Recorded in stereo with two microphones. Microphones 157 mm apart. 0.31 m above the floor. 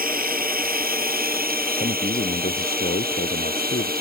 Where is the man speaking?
80° left.